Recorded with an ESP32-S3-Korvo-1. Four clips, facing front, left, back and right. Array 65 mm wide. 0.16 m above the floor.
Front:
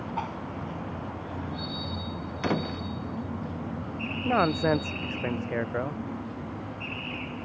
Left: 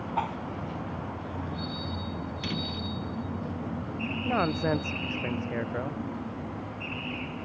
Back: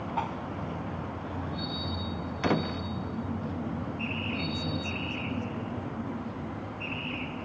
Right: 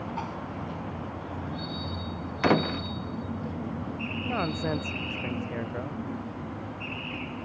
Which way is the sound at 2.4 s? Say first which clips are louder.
Right 14 dB, back 1 dB; 90° right.